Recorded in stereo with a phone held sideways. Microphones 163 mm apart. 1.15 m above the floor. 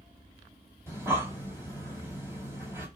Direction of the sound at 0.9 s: 15° right (ahead or behind).